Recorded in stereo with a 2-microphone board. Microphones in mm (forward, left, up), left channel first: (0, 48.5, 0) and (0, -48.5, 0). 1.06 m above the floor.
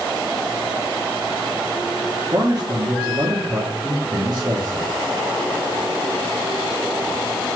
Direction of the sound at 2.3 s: 45° right (ahead or behind).